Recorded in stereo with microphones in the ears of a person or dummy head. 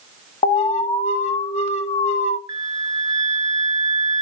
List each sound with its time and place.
0.4 s an alarm: 40° left (ahead or behind), 1.2 m
2.5 s a flute: 20° right (ahead or behind), 1.0 m